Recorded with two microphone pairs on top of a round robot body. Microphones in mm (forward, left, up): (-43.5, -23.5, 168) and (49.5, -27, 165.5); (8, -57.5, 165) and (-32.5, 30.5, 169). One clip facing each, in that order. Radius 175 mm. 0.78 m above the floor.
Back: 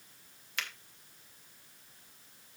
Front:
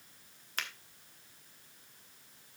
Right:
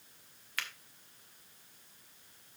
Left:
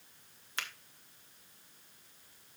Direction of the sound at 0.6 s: 50° left.